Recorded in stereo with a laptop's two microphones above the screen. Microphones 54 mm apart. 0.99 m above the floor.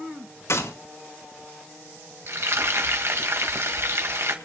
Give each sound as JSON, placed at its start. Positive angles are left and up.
{"t": 0.5, "sound": "a gunshot", "side_deg": 75, "distance_m": 4.0}
{"t": 2.3, "sound": "frying", "side_deg": -60, "distance_m": 2.0}